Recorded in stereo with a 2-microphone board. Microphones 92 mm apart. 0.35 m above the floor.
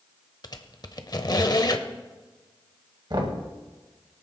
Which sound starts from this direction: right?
Knocking, at 3.1 s.